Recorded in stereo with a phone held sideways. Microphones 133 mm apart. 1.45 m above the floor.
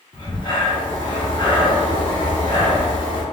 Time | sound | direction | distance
0.1 | breathing | 35° left (ahead or behind) | 1.1 m